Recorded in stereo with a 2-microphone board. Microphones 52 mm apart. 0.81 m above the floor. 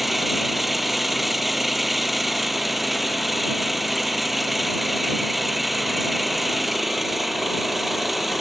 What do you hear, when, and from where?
0.0 s an engine running: 5° right (ahead or behind)